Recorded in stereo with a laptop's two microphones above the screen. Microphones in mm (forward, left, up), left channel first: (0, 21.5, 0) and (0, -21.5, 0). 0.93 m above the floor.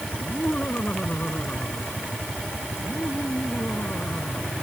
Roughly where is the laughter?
Left.